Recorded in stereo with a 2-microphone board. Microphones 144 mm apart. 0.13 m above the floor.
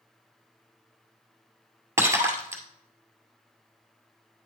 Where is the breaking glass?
20° right (ahead or behind), 1.8 m.